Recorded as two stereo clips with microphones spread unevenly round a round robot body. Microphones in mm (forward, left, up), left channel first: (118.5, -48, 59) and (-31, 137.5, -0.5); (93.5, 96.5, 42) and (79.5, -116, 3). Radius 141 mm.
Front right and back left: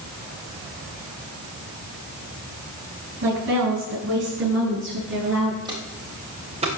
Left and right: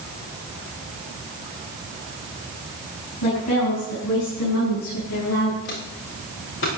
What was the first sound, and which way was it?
A woman speaking, 90° left.